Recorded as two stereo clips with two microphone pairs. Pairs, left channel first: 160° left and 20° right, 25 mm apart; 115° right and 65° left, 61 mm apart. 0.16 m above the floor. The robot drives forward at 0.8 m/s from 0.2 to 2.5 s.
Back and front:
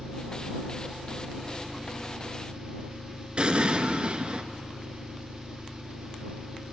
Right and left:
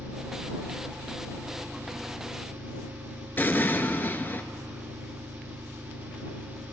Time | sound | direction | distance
0.0 | an engine running | 20° left | 5 m
3.4 | an explosion | 60° right | 0.6 m